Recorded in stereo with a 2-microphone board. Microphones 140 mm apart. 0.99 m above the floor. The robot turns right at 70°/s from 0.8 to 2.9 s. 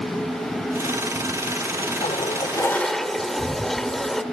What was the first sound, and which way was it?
A toilet flushing, 115° left.